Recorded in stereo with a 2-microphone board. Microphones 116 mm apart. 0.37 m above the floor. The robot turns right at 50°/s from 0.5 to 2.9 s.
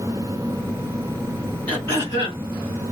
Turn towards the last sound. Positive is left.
turn(degrees=75)